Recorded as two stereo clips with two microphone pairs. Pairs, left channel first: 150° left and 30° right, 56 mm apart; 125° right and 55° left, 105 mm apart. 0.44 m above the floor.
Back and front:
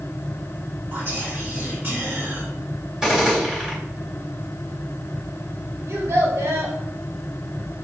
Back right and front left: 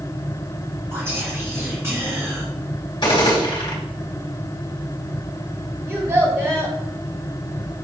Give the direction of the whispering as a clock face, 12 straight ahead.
12 o'clock.